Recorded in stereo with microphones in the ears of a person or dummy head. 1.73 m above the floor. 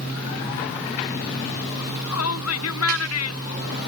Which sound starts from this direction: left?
A shout, at 1.8 s.